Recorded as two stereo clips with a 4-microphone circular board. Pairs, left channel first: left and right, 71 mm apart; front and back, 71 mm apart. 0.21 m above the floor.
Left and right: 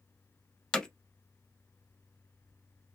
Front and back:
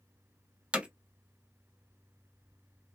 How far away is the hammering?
About 0.6 m.